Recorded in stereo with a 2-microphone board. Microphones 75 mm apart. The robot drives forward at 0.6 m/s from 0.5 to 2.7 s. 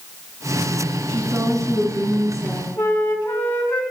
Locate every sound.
1.1 s a woman speaking: 45° right (ahead or behind), 4 m; by 2.7 s 55° right (ahead or behind), 3.5 m
2.8 s a flute: 25° left (ahead or behind), 2 m